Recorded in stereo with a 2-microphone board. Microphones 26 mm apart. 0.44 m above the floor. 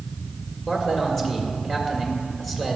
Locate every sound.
0.7 s a man speaking: 15° left (ahead or behind), 1.9 m